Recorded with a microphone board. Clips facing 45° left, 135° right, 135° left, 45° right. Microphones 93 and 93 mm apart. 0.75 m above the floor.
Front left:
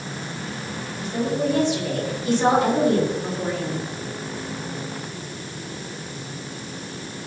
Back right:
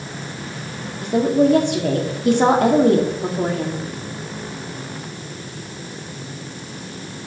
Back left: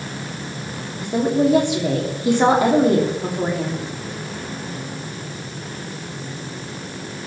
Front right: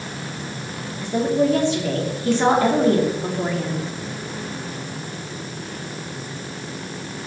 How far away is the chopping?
I don't hear chopping.